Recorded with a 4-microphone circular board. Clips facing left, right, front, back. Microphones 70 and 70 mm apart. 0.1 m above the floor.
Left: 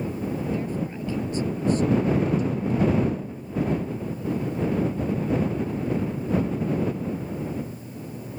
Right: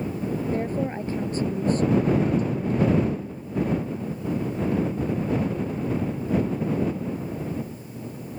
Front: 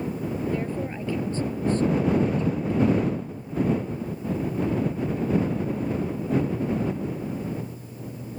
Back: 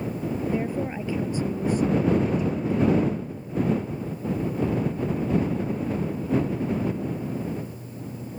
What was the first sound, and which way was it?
A woman speaking, 110° right.